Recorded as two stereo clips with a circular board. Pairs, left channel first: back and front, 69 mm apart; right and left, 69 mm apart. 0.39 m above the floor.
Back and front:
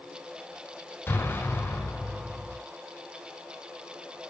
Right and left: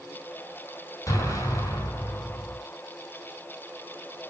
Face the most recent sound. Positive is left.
turn(degrees=-125)